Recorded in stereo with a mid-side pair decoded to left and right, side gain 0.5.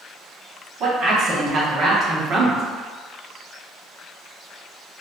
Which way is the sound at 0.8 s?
60° right.